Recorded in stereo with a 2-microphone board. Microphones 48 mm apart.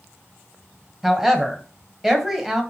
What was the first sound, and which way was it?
A woman speaking, 5° right (ahead or behind).